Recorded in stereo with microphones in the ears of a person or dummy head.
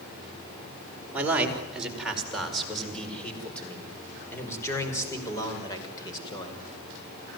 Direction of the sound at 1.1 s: 5° right (ahead or behind).